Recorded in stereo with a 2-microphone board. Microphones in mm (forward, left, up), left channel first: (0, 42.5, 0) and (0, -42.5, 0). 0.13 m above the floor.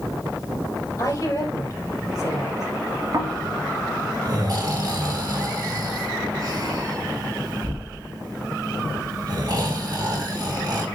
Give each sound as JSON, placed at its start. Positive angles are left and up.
{"t": 1.0, "sound": "a woman speaking", "side_deg": 40, "distance_m": 3.5}
{"t": 3.1, "sound": "snoring", "side_deg": -45, "distance_m": 1.8}